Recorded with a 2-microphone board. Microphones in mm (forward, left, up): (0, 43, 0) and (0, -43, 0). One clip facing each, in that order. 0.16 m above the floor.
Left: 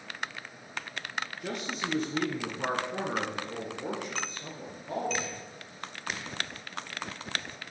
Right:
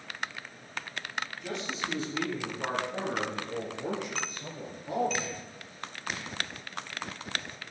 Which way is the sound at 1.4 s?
55° left (ahead or behind).